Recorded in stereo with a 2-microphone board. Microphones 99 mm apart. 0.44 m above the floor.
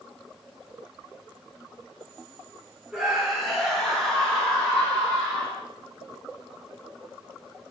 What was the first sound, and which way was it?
A scream, 5° right (ahead or behind).